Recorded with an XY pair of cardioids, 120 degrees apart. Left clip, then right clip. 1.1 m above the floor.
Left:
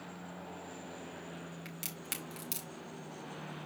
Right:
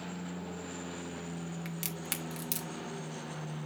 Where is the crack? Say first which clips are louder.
Right 4 dB; 25° right, 1.7 m.